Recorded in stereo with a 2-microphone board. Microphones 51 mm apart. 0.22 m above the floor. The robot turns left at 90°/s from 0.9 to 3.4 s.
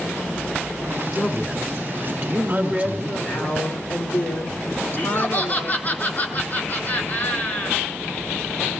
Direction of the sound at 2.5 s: 155° right.